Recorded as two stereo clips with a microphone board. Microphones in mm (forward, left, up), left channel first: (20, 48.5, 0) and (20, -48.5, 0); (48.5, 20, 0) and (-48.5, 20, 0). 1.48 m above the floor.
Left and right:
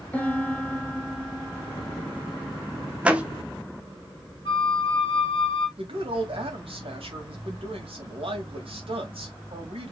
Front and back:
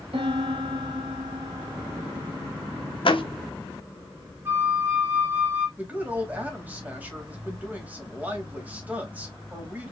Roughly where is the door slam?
Ahead.